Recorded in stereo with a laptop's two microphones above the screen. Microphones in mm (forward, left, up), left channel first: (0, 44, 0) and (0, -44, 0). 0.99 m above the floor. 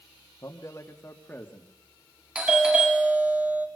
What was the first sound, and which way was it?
A man speaking, 40° left (ahead or behind).